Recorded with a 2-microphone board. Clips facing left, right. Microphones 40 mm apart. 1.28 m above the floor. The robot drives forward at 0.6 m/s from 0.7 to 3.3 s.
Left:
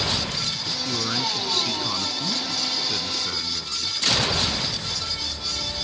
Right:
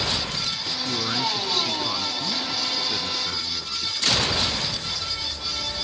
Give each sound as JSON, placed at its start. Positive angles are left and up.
{"t": 0.8, "sound": "a man speaking", "side_deg": 5}